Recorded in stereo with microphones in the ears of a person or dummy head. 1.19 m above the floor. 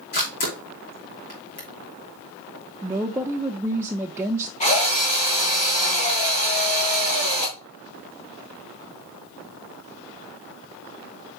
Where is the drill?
35° left (ahead or behind), 3 m.